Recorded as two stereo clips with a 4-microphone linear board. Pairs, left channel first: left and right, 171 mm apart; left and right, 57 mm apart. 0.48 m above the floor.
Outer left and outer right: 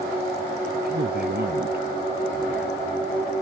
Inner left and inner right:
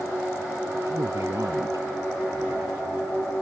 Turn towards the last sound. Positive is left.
turn(degrees=-75)  # may be behind; listen again after turning